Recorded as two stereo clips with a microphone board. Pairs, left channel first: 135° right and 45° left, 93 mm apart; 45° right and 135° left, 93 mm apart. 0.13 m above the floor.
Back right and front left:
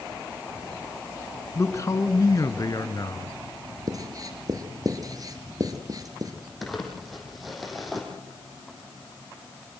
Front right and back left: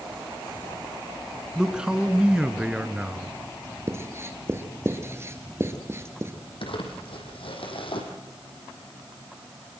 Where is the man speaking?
150° right, 1.8 m.